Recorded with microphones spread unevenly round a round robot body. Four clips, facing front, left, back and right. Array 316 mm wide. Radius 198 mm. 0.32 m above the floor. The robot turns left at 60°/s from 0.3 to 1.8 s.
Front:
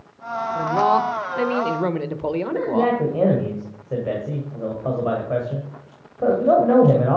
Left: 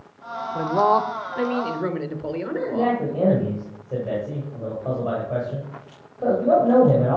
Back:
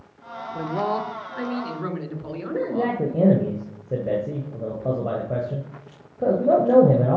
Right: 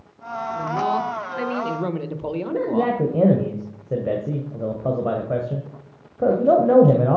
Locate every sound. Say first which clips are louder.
0.6 s a man speaking: left 5 dB, front 7 dB; 75° left, 1.1 m; by 3.5 s straight ahead, 1.1 m
2.5 s a man speaking: right 1 dB, front 2 dB; 110° right, 1.5 m